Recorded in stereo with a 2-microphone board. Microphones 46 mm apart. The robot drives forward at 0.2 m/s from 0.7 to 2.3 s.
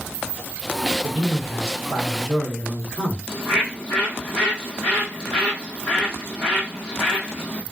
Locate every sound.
1.0 s a man speaking: 5° left (ahead or behind), 1.9 m
3.3 s a bird: 20° left (ahead or behind), 1.4 m